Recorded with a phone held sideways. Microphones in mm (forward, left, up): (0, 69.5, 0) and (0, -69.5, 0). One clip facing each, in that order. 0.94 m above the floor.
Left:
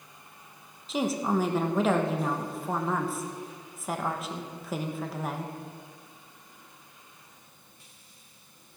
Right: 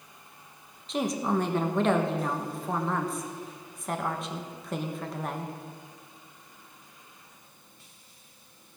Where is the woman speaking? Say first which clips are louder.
Left 1 dB; centre (ahead or behind), 1.0 m.